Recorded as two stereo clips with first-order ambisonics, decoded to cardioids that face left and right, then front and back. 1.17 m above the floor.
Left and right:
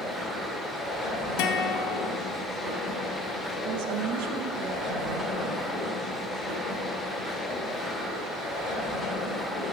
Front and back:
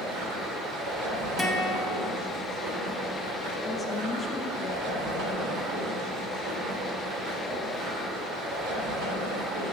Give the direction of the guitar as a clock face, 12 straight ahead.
9 o'clock.